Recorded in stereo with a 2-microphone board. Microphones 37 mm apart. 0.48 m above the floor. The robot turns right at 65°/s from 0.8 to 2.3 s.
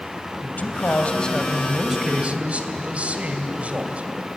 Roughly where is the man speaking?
Behind left.